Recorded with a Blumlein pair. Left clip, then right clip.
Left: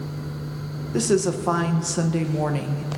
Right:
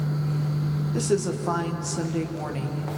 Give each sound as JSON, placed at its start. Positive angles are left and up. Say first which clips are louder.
{"t": 0.9, "sound": "a woman speaking", "louder": "left 4 dB", "azimuth_deg": 20, "distance_m": 1.4}